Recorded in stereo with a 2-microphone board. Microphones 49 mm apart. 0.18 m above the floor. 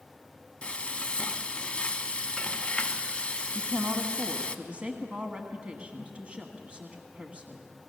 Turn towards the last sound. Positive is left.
turn(degrees=-25)  # may be behind; listen again after turning